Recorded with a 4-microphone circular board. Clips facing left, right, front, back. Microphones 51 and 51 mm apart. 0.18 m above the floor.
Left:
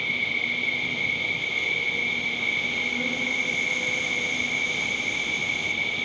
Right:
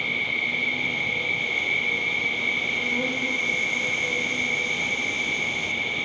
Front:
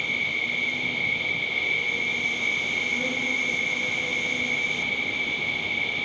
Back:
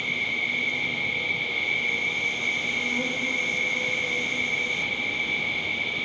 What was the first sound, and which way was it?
An insect, 130° right.